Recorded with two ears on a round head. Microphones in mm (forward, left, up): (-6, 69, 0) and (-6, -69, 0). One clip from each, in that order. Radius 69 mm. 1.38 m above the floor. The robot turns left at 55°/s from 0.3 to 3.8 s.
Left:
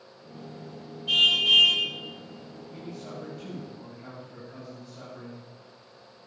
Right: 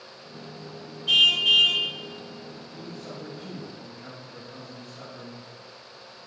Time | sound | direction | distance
1.1 | a car horn | 150° right | 2.5 m
2.7 | a man speaking | 55° left | 8 m